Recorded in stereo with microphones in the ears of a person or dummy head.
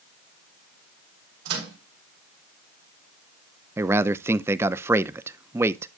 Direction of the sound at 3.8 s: 10° right (ahead or behind).